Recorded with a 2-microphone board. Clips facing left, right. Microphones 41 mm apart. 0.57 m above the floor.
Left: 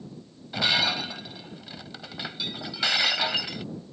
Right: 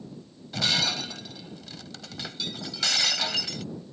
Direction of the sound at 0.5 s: 20° left (ahead or behind).